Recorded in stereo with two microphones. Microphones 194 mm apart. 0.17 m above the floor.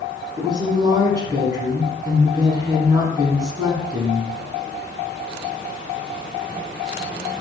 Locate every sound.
0.4 s a woman speaking: 20° right (ahead or behind), 1.1 m